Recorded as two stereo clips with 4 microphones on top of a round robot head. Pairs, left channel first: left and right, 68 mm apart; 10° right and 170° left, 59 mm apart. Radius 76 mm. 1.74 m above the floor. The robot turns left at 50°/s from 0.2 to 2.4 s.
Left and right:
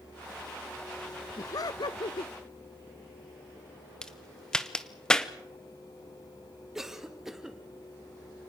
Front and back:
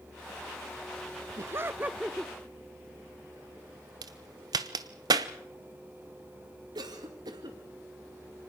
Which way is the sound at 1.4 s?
130° left.